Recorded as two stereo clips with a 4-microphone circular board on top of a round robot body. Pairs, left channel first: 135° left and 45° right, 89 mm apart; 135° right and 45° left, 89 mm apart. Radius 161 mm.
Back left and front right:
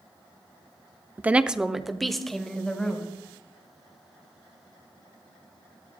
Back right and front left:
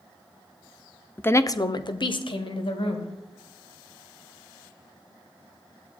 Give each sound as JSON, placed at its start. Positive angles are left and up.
{"t": 1.2, "sound": "a woman speaking", "azimuth_deg": -90, "distance_m": 0.9}